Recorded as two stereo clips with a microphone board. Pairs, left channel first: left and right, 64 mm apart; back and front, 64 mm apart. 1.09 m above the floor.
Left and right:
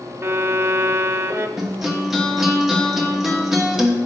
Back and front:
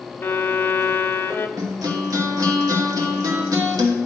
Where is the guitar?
5° right, 1.1 m.